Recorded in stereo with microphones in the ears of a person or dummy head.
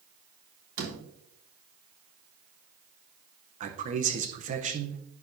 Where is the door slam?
70° right (ahead or behind), 3.5 m.